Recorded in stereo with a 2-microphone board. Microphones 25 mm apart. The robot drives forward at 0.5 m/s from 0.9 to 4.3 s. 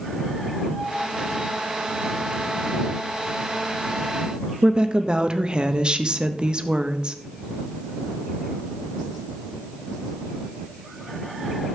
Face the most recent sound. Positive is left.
turn(degrees=-40)  # may be behind; listen again after turning